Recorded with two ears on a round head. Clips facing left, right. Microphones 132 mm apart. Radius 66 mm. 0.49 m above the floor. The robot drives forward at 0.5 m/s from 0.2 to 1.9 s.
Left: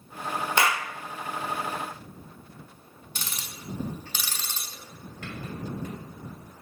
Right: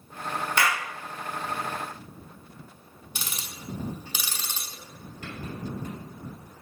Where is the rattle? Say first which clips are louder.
Even; 60° left (ahead or behind), 2.5 m.